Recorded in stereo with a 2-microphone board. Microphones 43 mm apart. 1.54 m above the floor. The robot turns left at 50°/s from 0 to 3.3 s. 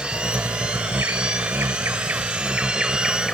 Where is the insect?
20° right; by 3.4 s 175° left.